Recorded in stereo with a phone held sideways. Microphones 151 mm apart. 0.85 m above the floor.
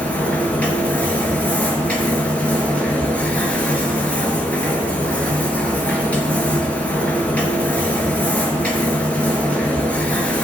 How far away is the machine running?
About 3 m.